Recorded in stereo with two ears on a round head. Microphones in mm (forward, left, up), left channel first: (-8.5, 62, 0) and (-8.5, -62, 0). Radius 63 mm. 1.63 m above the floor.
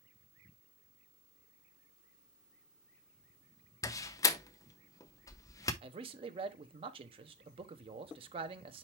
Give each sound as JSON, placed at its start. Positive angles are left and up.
{"t": 3.8, "sound": "a door slam", "side_deg": 25, "distance_m": 0.7}
{"t": 5.8, "sound": "a man speaking", "side_deg": -40, "distance_m": 1.2}